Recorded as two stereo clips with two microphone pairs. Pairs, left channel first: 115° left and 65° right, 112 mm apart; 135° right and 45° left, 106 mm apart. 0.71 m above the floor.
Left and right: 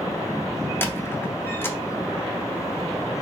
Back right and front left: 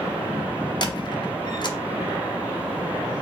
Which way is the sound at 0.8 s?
175° right.